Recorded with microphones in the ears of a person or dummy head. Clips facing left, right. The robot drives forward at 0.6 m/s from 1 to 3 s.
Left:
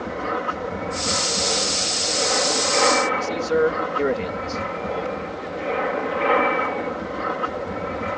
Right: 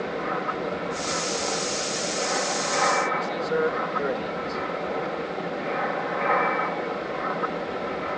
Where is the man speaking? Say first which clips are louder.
Left 5 dB; 35° left (ahead or behind).